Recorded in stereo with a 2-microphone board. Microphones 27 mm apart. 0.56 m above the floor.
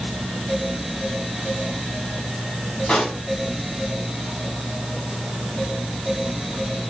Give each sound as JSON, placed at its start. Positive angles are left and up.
{"t": 2.9, "sound": "a pop", "side_deg": 50, "distance_m": 4.5}